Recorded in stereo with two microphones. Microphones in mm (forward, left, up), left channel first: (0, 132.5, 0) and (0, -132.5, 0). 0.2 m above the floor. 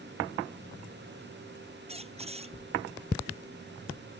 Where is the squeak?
25° right (ahead or behind).